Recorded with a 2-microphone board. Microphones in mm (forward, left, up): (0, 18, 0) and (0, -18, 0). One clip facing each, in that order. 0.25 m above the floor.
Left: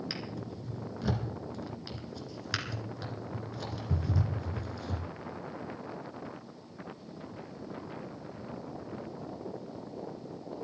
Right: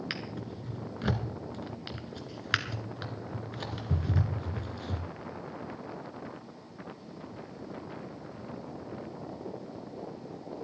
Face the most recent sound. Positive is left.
turn(degrees=-40)  # may be behind; listen again after turning